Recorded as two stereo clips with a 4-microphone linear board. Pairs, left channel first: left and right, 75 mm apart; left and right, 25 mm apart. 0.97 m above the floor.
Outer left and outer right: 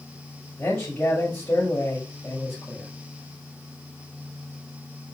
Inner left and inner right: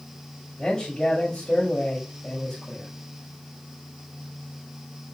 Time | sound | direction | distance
0.6 | a man speaking | 20° left (ahead or behind) | 5 m